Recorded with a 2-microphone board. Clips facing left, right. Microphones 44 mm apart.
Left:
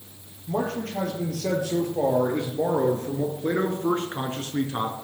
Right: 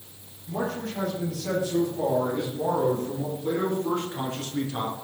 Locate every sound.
0.5 s a man speaking: 70° left (ahead or behind), 6 m; by 4.9 s 30° left (ahead or behind), 2.5 m